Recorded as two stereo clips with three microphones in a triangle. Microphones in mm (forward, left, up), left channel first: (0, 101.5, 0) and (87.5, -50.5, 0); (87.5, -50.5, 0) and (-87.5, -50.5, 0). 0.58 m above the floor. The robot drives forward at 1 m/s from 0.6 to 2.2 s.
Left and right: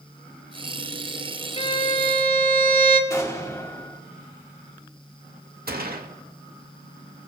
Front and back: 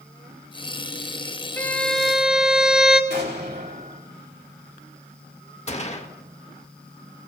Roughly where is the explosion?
Behind.